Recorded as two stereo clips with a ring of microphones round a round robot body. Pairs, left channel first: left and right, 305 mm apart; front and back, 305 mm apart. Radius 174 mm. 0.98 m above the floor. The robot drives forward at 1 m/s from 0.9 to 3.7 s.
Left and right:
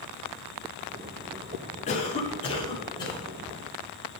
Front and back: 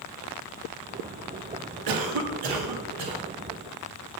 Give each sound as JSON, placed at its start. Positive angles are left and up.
{"t": 1.9, "sound": "a cough", "azimuth_deg": 160, "distance_m": 1.8}